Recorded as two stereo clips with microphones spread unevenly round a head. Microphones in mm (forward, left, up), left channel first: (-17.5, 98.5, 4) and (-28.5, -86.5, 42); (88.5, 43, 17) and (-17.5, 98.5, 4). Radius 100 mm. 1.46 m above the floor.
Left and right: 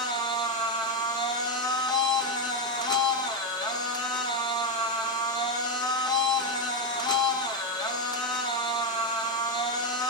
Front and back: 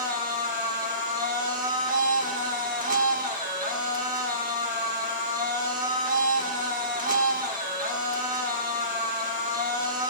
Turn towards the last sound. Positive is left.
turn(degrees=160)